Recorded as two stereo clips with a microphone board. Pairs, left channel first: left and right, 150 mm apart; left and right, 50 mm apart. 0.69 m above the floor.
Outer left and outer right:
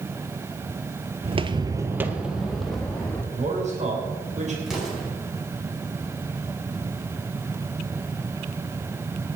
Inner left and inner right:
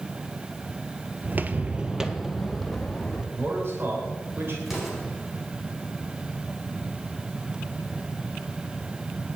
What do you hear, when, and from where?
1.2 s footsteps: 40° right (ahead or behind), 0.8 m; by 3.2 s 5° left (ahead or behind), 2.5 m
3.3 s a man speaking: 50° right (ahead or behind), 3 m
4.7 s an explosion: centre (ahead or behind), 5.5 m